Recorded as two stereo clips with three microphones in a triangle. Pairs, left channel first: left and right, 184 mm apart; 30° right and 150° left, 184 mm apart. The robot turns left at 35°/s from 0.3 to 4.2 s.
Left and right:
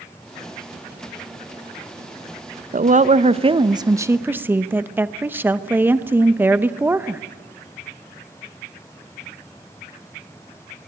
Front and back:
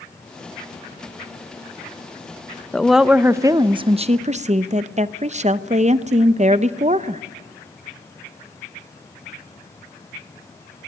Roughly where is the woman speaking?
Behind right.